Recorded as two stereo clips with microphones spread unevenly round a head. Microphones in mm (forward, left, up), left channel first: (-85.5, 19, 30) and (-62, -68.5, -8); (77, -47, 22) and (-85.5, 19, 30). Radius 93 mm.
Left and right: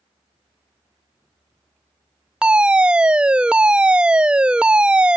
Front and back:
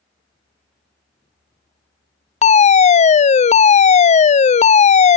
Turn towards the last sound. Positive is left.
turn(degrees=-35)